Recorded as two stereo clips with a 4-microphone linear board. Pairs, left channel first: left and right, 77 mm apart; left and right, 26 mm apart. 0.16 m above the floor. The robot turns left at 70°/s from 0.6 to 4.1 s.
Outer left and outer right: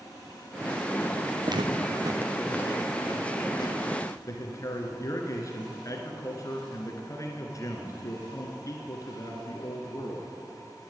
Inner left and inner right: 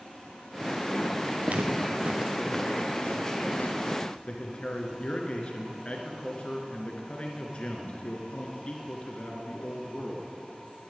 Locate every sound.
1.4 s footsteps: 50° right (ahead or behind), 1.4 m; by 4.2 s 20° left (ahead or behind), 3.5 m
4.3 s a man speaking: 45° left (ahead or behind), 2 m